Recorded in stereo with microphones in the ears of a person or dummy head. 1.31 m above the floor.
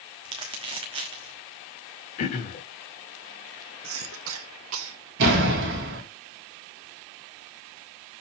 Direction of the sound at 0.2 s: 30° right (ahead or behind).